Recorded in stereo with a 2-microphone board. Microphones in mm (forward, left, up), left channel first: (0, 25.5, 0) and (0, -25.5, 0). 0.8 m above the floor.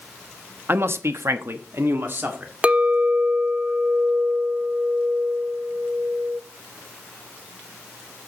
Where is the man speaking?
45° right (ahead or behind), 1.0 m; by 2.5 s 40° right (ahead or behind), 2.0 m.